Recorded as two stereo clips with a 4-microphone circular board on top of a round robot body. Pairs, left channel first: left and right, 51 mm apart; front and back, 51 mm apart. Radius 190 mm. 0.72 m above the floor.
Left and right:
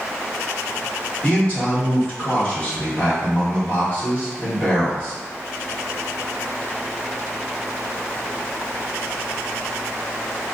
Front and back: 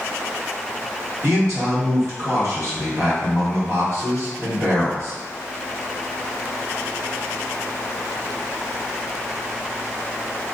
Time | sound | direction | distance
1.2 | a man speaking | 150° left | 1.9 m